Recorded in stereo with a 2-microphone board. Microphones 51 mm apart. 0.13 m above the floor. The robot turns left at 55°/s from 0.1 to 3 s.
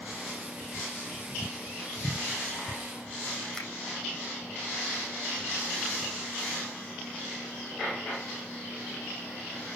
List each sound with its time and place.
3.5 s a finger snap: 10° left (ahead or behind), 5.5 m